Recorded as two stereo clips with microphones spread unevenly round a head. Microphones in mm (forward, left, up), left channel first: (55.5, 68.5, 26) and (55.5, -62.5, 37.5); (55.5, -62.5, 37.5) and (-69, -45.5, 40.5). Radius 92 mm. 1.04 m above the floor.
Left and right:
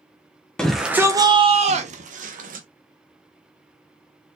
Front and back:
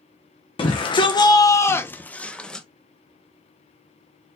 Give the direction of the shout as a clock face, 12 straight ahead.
11 o'clock.